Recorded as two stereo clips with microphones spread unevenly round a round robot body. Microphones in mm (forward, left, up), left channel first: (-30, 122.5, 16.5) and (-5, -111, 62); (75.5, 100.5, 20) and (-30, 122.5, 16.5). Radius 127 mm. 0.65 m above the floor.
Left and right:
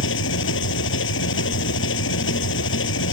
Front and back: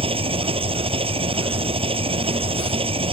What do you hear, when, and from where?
0.0 s an engine running: 135° left